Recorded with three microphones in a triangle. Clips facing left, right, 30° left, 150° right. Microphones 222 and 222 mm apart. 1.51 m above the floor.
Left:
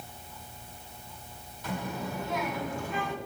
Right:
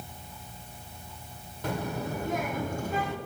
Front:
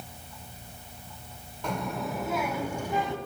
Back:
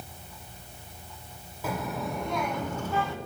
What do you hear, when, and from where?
1.6 s a child speaking: 65° right, 2.5 m; by 3.1 s 40° right, 2 m